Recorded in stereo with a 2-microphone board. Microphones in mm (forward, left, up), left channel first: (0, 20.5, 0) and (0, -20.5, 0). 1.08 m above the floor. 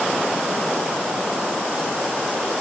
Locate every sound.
Only background noise.